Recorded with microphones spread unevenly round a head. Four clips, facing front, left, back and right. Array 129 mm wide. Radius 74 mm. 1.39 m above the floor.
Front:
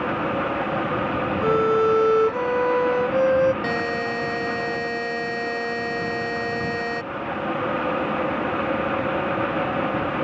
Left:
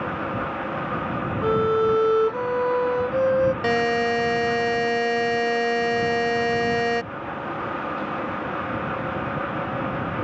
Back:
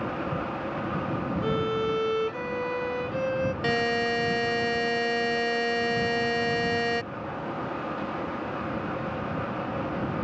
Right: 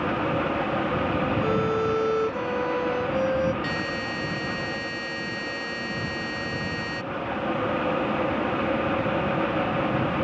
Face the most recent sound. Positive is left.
turn(degrees=85)